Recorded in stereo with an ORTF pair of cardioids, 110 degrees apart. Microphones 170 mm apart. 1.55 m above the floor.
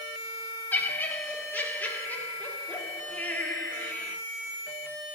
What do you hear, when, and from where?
0.7 s laughter: 10° left, 3.5 m